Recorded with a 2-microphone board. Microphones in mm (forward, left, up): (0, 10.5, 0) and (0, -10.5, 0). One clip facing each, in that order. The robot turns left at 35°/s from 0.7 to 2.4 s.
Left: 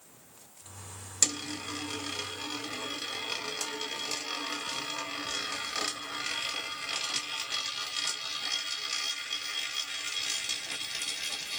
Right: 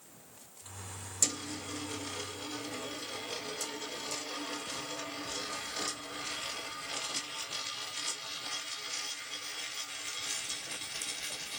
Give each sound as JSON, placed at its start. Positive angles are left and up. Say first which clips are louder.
{"t": 1.2, "sound": "a dropped coin", "louder": "left 4 dB", "side_deg": 40, "distance_m": 1.1}